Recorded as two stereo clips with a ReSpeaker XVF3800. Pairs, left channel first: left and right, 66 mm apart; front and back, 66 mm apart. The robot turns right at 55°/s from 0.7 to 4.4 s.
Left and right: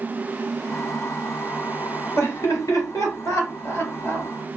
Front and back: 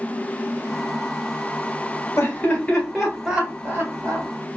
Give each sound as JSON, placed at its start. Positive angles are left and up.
{"t": 2.2, "sound": "laughter", "azimuth_deg": 40, "distance_m": 2.0}